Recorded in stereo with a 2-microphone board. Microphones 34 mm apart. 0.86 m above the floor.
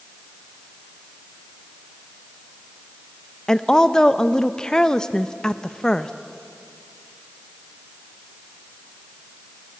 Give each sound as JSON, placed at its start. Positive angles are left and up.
{"t": 3.5, "sound": "a woman speaking", "side_deg": 20, "distance_m": 0.7}